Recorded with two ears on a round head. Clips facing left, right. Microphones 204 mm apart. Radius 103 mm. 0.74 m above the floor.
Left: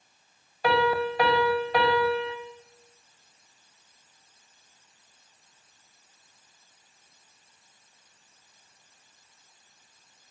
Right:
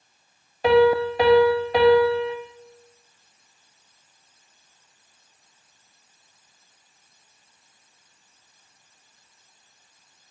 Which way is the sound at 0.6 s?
20° right (ahead or behind).